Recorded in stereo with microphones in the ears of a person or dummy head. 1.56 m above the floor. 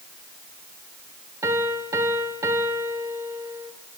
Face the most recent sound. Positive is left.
turn(degrees=-10)  # may be behind; listen again after turning